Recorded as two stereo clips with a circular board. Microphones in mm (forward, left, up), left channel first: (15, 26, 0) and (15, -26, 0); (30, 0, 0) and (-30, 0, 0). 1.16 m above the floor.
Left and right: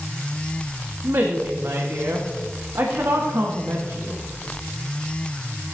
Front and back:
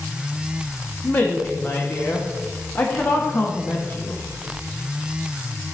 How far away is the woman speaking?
About 1.3 m.